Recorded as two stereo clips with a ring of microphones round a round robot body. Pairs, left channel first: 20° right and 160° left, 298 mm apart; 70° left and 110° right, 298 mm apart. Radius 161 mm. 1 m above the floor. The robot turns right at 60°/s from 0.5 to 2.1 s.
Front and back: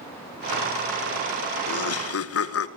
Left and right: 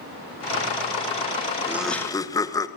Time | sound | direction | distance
1.7 | laughter | 35° right | 1.1 m